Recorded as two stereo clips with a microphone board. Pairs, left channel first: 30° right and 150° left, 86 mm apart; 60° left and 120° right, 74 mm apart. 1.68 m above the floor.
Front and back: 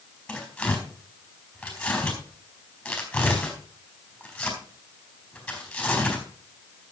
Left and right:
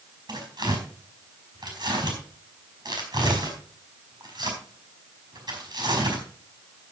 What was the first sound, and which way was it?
Tearing paper, 105° right.